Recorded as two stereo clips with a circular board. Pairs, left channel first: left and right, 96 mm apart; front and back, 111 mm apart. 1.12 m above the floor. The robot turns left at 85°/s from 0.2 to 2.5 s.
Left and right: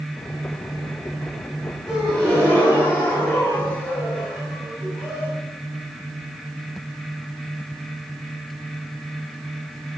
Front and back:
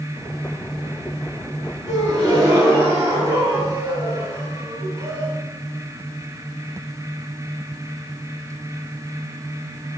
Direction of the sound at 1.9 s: 165° right.